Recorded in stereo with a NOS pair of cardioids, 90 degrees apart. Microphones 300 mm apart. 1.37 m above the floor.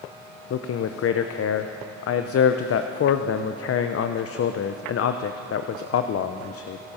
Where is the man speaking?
50° left, 0.7 m.